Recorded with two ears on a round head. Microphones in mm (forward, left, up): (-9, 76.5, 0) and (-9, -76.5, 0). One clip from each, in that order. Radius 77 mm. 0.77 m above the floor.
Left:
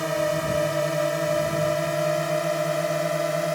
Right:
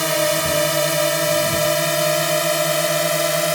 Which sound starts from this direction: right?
A drone, at 0.0 s.